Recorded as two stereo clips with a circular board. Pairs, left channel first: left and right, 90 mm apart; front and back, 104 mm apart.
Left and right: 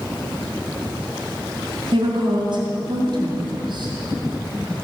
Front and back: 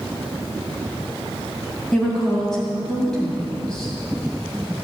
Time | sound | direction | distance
1.9 | a woman speaking | 85° right | 2.5 m